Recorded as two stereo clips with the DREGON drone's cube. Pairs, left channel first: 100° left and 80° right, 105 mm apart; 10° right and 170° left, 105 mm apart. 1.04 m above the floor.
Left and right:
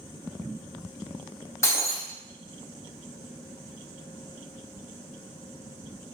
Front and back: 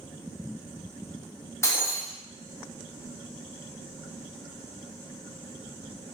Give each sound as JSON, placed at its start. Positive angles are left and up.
{"t": 1.6, "sound": "breaking glass", "azimuth_deg": 40, "distance_m": 0.5}